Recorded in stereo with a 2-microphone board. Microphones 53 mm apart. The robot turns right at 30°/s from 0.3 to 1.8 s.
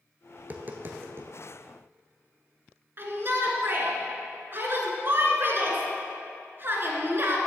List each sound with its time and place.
0.4 s tapping: 30° right (ahead or behind), 0.8 m; by 1.3 s 50° right (ahead or behind), 0.8 m
3.0 s a shout: 45° right (ahead or behind), 1.4 m